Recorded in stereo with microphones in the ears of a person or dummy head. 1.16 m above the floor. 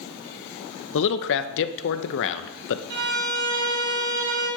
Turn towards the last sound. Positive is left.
turn(degrees=-80)